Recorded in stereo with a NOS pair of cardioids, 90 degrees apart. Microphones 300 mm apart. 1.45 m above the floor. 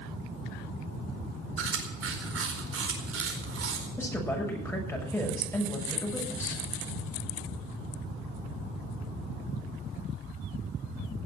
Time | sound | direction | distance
1.6 | chewing | 50° right | 4.5 m
4.0 | a woman speaking | 10° left | 6.5 m